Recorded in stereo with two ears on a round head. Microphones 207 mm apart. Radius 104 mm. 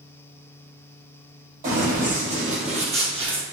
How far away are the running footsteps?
About 3 m.